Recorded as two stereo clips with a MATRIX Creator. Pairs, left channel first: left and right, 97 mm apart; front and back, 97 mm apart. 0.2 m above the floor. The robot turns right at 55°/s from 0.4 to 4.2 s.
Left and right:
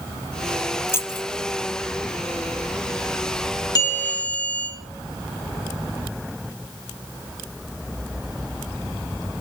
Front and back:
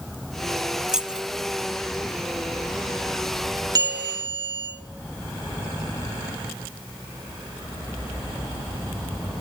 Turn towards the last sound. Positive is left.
turn(degrees=160)